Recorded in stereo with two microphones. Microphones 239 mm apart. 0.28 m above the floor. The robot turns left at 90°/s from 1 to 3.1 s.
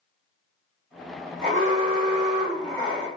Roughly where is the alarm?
Right.